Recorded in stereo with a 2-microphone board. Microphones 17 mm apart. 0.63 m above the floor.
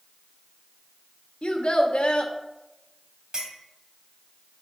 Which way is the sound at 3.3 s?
50° right (ahead or behind).